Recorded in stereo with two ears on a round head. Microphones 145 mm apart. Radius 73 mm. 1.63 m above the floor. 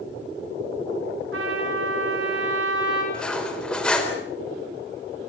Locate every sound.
1.3 s a trumpet: 90° right, 8.5 m
3.1 s cutlery clinking: 5° left (ahead or behind), 3.5 m